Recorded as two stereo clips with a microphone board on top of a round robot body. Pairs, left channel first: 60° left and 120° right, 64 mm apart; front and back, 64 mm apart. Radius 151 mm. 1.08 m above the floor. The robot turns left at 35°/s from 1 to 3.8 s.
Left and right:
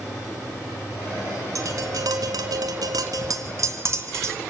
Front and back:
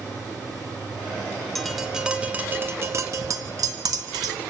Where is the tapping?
85° right, 2.5 m; by 4.4 s 165° right, 2.5 m.